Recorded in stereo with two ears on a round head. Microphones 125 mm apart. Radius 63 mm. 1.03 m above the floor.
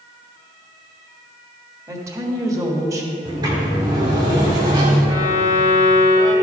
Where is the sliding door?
30° right (ahead or behind), 1.7 m.